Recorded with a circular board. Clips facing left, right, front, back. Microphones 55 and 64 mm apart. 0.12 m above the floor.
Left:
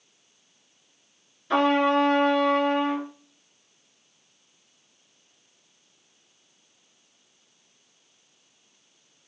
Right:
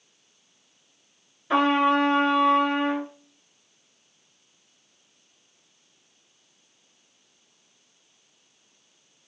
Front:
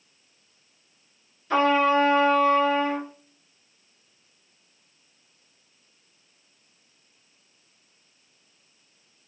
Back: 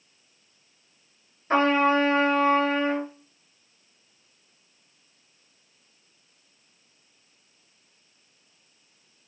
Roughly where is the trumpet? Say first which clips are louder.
Even, even; behind.